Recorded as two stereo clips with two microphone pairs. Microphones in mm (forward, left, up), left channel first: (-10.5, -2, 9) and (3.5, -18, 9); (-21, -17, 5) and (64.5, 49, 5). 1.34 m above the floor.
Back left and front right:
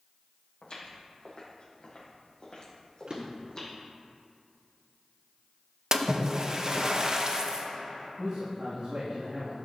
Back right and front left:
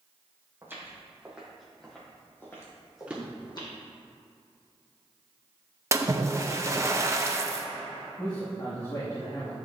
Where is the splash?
10° right, 0.7 m.